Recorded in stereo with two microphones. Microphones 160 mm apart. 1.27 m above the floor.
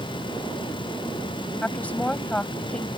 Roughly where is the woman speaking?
Centre.